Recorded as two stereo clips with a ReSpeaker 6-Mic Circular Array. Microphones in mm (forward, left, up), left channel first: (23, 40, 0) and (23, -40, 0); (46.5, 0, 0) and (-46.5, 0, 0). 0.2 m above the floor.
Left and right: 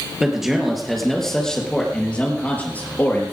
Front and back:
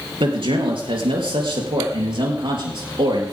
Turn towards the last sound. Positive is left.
turn(degrees=150)